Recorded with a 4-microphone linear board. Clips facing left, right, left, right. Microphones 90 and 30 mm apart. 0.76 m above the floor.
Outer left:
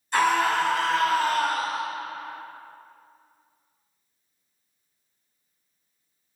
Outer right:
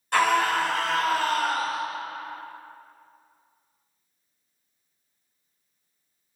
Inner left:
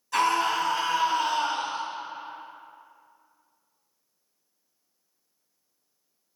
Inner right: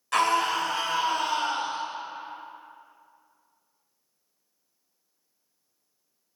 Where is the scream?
75° right (ahead or behind), 3 m; by 1.8 s 80° right, 3.5 m.